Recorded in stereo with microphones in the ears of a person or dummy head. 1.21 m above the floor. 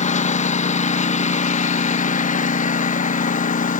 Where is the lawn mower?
35° left (ahead or behind); by 3.8 s 40° left (ahead or behind).